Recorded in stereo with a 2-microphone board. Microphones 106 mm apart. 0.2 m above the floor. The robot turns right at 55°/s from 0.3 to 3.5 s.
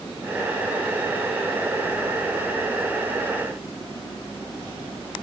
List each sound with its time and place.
Only background noise.